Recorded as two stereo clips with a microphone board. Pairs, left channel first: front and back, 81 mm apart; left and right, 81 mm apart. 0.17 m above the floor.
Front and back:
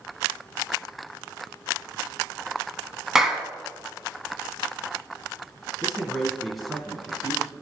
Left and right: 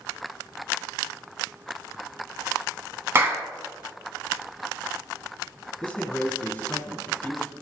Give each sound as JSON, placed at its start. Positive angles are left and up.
{"t": 3.1, "sound": "a clap", "azimuth_deg": -105, "distance_m": 1.0}
{"t": 5.8, "sound": "a man speaking", "azimuth_deg": 95, "distance_m": 1.5}